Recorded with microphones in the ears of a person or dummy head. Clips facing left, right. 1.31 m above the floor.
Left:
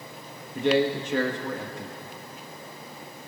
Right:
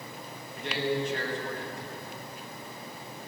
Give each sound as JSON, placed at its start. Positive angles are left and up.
{"t": 0.6, "sound": "a man speaking", "side_deg": 70, "distance_m": 1.8}